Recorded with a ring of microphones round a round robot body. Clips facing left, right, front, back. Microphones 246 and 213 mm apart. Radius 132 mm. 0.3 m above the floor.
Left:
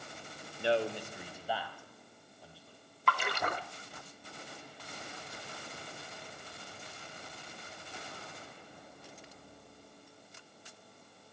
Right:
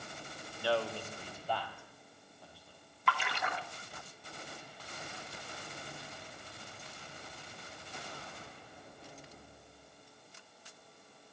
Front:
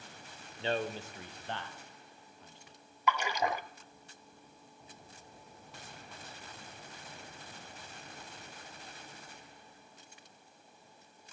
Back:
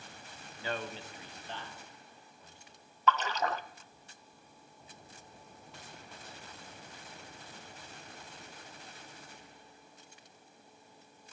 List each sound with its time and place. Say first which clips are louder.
0.6 s a man speaking: left 3 dB, front 5 dB; 45° left, 1.0 m; by 2.8 s straight ahead, 2.5 m
3.1 s a splash: left 3 dB, back 1 dB; 75° left, 0.6 m